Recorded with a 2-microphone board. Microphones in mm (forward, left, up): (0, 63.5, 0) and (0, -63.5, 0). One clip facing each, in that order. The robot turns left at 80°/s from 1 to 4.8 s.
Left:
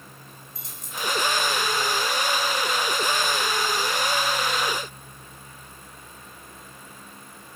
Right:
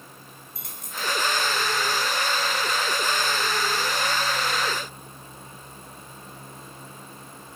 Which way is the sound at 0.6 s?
60° right (ahead or behind).